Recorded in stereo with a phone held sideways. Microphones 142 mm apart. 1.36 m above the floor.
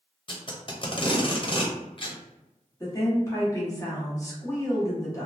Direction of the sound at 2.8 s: 25° left (ahead or behind).